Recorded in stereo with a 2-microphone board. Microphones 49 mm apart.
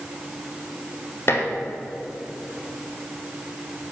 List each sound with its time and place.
1.3 s dishes clattering: 55° left (ahead or behind), 2.0 m